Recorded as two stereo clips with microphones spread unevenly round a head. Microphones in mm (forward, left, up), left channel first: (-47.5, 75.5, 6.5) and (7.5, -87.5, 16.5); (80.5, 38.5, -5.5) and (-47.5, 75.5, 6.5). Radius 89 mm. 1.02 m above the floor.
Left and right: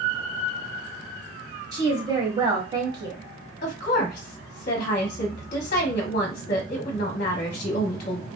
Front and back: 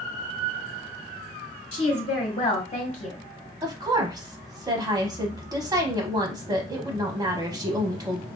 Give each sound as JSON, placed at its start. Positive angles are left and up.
{"t": 1.7, "sound": "a woman speaking", "azimuth_deg": -10, "distance_m": 0.8}
{"t": 3.6, "sound": "a woman speaking", "azimuth_deg": 105, "distance_m": 0.7}